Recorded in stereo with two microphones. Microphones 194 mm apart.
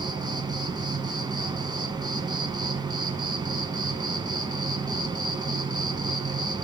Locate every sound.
0.0 s an insect: 20° right (ahead or behind), 1.1 m